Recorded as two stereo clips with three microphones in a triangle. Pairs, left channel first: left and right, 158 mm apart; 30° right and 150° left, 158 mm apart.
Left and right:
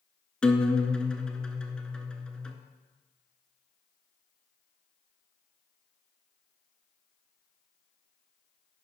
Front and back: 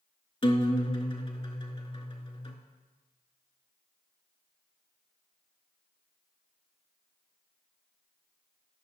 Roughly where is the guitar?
Ahead.